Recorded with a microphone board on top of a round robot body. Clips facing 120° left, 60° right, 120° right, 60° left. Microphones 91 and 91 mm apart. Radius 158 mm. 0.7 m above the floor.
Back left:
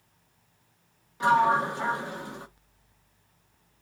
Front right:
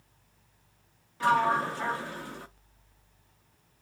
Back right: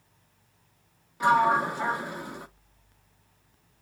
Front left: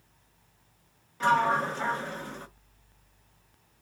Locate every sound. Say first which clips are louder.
1.2 s a sliding door: back left 3 dB, back right 3 dB; 170° left, 1.0 m